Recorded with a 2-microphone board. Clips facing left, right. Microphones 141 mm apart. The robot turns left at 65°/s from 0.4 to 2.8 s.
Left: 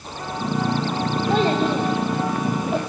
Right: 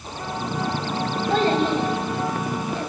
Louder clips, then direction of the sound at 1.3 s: Even; 10° left (ahead or behind).